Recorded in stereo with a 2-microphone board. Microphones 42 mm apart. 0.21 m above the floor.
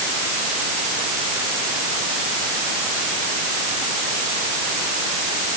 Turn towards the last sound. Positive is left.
No sound to turn to.